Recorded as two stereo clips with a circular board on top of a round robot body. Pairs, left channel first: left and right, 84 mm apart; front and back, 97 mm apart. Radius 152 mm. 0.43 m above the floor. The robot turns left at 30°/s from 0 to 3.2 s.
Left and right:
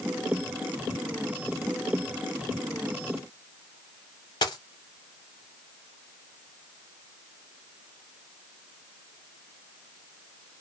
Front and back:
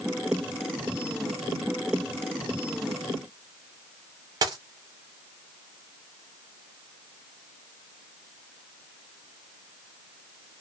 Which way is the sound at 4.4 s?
130° left.